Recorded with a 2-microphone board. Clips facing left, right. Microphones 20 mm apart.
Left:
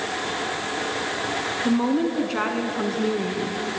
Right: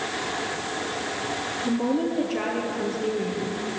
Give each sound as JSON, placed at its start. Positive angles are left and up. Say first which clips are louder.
{"t": 1.6, "sound": "a woman speaking", "louder": "left 3 dB", "side_deg": 60, "distance_m": 2.0}